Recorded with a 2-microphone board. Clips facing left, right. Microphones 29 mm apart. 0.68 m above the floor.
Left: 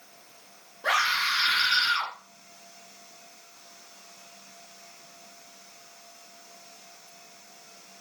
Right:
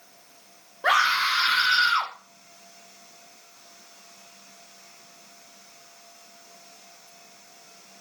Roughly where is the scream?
Right.